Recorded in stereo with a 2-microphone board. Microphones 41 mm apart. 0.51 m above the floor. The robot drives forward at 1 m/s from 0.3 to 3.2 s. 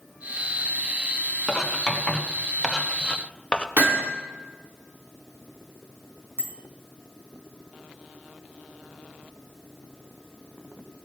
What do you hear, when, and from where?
1.5 s writing: 10° left (ahead or behind), 2.5 m; by 3.7 s 25° left (ahead or behind), 0.8 m
3.8 s hammering: 60° right (ahead or behind), 4.5 m
6.4 s a bicycle bell: 65° right (ahead or behind), 3.5 m